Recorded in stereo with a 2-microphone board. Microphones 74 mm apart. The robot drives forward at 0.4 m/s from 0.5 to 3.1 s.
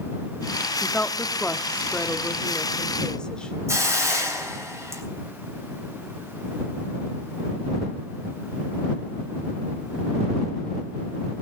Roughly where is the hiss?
Right.